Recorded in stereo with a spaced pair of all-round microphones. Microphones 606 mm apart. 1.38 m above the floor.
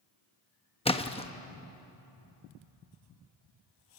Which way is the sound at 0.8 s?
10° left (ahead or behind).